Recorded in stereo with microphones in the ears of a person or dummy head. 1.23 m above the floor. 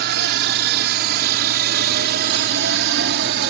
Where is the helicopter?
55° right (ahead or behind); by 3.5 s 60° right (ahead or behind).